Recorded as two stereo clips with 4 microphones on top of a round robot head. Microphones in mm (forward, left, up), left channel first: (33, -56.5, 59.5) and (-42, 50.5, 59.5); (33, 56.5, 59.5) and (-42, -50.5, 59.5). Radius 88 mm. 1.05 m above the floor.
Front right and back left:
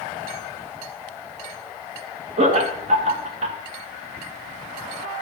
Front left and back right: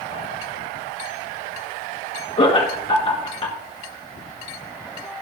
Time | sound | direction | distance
2.4 | laughter | 100° left | 1.7 m